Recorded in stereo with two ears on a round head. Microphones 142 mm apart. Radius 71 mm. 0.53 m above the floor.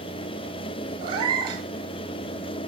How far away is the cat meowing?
About 2.5 m.